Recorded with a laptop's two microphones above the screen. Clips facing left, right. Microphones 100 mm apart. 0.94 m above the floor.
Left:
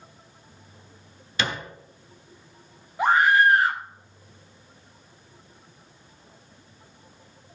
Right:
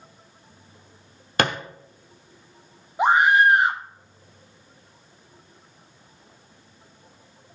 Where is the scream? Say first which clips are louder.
Right 2 dB; 20° right (ahead or behind), 0.8 m.